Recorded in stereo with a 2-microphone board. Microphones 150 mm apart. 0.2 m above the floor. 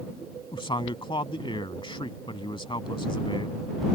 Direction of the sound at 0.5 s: 35° left (ahead or behind).